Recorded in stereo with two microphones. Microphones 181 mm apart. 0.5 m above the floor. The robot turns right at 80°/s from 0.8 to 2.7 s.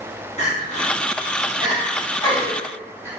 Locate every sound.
0.4 s crying: 45° left (ahead or behind), 1.6 m; by 3.1 s 15° right (ahead or behind), 1.6 m